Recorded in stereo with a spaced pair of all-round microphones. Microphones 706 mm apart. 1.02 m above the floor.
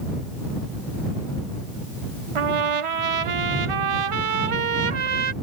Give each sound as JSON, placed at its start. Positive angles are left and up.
{"t": 2.4, "sound": "a trumpet", "side_deg": -50}